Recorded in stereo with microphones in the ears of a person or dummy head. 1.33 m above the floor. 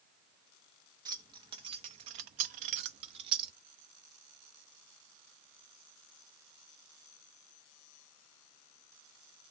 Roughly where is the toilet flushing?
I don't hear a toilet flushing.